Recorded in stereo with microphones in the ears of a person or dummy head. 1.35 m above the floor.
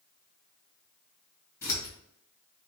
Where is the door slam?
No door slam in this recording.